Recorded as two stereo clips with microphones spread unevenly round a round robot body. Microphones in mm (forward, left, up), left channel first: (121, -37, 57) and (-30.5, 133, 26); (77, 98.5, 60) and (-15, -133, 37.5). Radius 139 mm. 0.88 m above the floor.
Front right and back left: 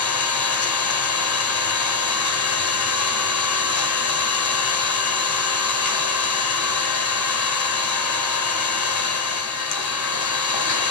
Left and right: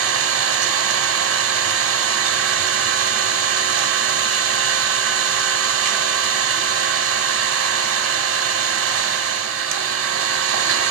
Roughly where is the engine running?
Right.